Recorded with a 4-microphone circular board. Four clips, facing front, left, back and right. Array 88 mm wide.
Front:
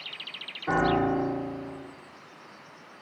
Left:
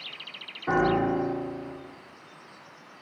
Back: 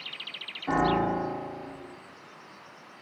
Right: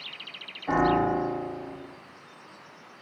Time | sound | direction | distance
0.7 | a piano | 75° left | 7.5 m